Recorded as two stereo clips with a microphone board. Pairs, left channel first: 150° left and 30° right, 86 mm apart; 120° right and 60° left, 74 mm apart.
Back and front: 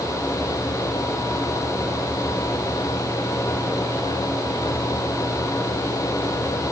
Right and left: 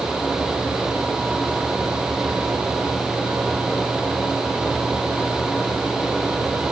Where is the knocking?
I don't hear knocking.